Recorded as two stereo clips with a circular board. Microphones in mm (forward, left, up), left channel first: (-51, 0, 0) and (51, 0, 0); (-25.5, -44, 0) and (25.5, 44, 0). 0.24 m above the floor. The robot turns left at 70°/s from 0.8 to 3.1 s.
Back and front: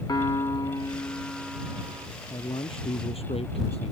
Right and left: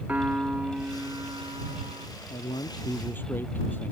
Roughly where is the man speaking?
Behind right.